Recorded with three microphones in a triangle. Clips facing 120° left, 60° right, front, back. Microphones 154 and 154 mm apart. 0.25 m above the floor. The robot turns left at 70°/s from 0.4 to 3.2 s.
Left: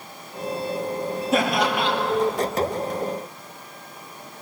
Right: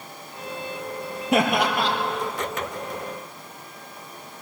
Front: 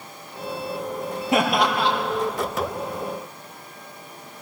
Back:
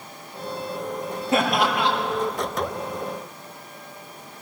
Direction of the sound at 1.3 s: 70° right.